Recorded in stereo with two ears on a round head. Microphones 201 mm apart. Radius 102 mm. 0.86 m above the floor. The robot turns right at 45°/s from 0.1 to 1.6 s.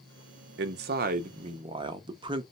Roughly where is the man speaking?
Right.